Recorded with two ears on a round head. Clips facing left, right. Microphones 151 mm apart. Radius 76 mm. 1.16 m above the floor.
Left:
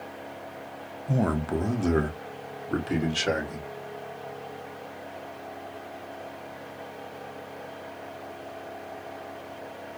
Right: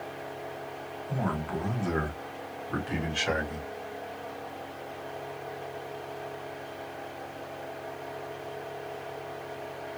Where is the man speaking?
50° left (ahead or behind), 0.6 m; by 3.7 s 45° left (ahead or behind), 2 m.